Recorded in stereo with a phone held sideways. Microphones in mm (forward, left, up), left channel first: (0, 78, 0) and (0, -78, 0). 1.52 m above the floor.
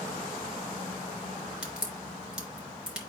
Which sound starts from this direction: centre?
A crack, at 1.6 s.